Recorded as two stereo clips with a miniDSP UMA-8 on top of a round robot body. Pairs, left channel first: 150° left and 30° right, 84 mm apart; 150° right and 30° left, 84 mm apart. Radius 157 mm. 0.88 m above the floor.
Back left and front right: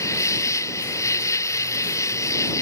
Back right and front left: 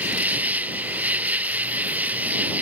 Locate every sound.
0.0 s an insect: 100° left